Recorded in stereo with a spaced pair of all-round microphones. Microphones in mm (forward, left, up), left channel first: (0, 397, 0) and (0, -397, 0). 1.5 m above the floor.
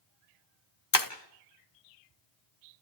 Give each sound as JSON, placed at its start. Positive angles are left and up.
{"t": 0.9, "sound": "breaking glass", "side_deg": 25, "distance_m": 1.4}